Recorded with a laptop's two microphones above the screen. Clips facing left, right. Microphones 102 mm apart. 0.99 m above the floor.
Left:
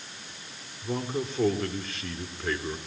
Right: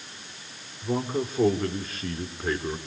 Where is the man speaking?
10° right (ahead or behind), 3 m.